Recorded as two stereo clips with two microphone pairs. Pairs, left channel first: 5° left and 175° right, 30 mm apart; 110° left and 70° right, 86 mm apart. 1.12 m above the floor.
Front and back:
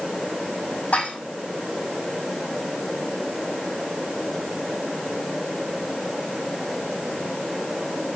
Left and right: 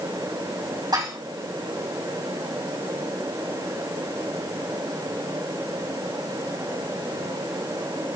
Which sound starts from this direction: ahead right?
Dishes clattering, at 0.9 s.